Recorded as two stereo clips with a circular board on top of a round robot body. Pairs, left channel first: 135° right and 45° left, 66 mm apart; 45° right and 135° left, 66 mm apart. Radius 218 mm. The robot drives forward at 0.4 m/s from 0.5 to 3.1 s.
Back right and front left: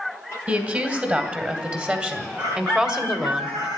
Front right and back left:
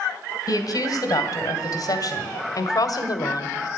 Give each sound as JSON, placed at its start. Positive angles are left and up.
{"t": 0.5, "sound": "a woman speaking", "azimuth_deg": -20, "distance_m": 2.5}